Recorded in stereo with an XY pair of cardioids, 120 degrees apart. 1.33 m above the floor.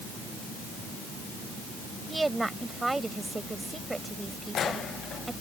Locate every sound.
2.1 s a woman speaking: 15° right